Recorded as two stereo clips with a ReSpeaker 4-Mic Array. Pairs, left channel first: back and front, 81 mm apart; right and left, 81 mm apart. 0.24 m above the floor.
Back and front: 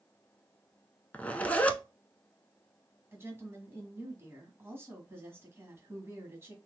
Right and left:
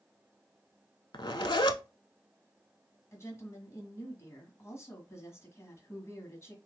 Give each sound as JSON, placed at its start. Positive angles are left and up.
{"t": 1.1, "sound": "a zipper", "azimuth_deg": -110, "distance_m": 0.6}
{"t": 3.1, "sound": "a woman speaking", "azimuth_deg": -50, "distance_m": 1.7}